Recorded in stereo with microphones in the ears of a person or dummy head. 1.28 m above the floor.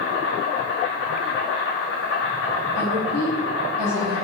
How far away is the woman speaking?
About 1.6 m.